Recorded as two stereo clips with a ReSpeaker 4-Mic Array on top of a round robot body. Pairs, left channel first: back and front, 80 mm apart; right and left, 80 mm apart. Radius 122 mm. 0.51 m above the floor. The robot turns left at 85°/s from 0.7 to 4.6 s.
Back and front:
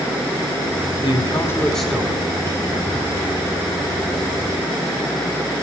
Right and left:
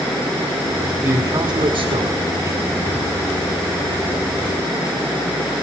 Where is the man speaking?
165° left, 2 m; by 2.6 s 30° left, 2 m.